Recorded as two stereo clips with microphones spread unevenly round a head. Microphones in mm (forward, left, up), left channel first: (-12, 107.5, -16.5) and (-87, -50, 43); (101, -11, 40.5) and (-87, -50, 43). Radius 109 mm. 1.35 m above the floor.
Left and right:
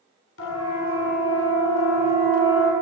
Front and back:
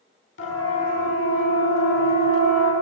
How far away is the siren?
About 9 m.